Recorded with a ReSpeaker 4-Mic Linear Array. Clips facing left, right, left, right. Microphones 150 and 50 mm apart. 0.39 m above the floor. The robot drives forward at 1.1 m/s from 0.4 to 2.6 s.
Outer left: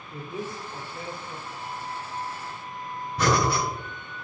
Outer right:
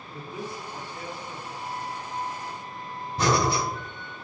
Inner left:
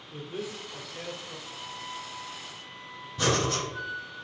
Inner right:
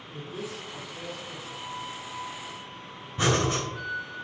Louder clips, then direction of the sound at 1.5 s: Outer right 2 dB, inner right 4 dB; 20° left (ahead or behind).